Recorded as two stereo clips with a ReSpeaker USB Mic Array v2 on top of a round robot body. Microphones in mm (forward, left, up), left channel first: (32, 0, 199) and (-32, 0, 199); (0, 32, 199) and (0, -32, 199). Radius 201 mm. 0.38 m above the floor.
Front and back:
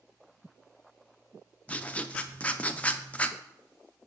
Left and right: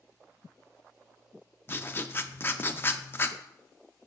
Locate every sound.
1.7 s writing: 55° left, 0.7 m